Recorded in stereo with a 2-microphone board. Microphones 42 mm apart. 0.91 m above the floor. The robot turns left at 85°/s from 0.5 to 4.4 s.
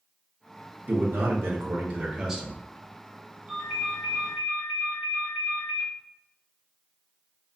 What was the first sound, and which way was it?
A man speaking, 40° right.